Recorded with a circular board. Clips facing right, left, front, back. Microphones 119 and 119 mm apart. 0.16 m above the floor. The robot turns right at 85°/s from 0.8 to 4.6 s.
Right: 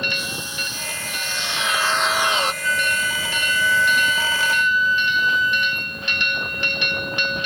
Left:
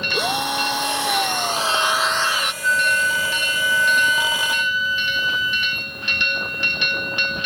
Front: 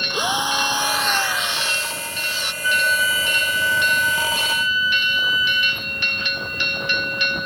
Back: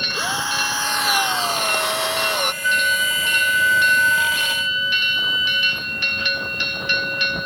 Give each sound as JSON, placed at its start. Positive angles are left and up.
{"t": 0.1, "sound": "a drill", "azimuth_deg": 75}
{"t": 2.6, "sound": "a flute", "azimuth_deg": 75}